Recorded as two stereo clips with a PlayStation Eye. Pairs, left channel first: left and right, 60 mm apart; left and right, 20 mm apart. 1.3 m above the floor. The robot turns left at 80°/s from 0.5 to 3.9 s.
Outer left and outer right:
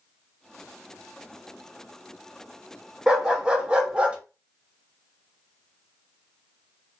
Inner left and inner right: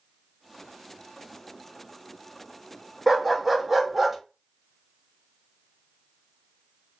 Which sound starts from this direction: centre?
A dog barking, at 3.1 s.